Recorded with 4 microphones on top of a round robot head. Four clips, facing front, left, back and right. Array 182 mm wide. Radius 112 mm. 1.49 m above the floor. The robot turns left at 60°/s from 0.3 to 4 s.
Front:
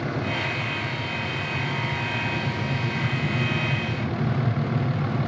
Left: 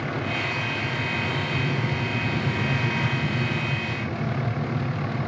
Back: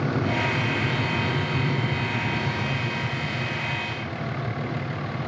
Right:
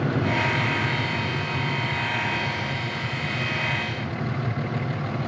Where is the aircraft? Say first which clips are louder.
Right 5 dB, back 3 dB; 130° right; by 5.3 s 10° left.